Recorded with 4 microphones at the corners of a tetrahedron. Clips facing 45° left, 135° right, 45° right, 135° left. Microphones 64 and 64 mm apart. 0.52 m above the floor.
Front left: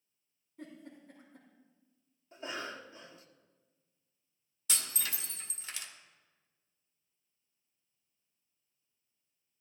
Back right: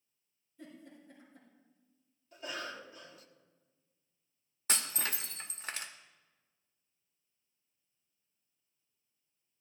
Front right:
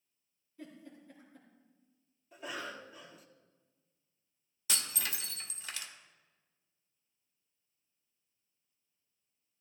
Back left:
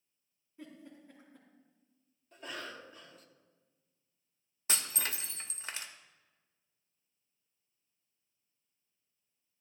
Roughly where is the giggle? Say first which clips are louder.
Front left 3 dB, even; left.